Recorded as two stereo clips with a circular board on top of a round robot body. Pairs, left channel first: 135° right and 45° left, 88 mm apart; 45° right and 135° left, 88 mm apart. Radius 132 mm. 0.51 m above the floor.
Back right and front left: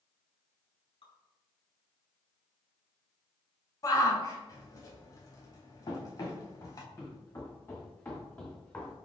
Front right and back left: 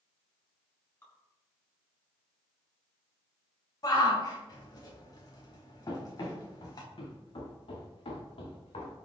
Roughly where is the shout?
Right.